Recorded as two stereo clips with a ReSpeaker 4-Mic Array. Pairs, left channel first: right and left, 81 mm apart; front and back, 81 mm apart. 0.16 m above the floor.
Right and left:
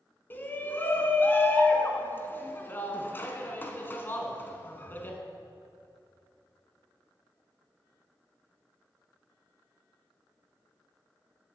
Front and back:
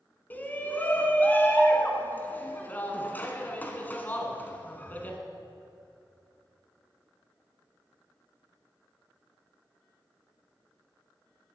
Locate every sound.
0.3 s a shout: 50° right, 1.2 m